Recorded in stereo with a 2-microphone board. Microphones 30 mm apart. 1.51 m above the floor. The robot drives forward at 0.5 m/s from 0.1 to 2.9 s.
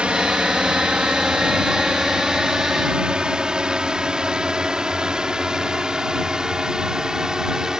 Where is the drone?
35° right (ahead or behind); by 7.8 s 20° right (ahead or behind).